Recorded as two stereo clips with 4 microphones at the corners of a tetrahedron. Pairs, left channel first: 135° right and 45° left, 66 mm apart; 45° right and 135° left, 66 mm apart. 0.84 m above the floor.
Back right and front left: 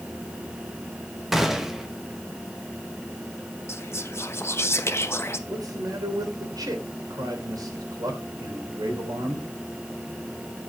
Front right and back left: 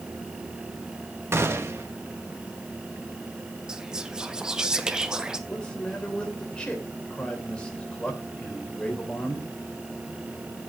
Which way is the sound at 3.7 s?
150° right.